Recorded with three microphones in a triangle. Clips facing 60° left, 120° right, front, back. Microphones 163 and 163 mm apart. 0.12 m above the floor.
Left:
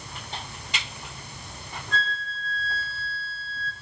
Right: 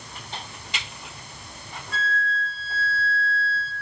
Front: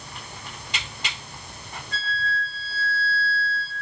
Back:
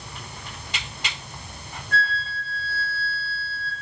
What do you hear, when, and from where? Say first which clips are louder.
1.9 s a flute: right 4 dB, back 3 dB; 160° left, 3.5 m